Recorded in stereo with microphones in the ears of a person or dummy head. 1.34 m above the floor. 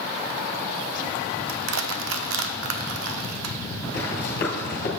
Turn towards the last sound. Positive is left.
turn(degrees=45)  # may be behind; listen again after turning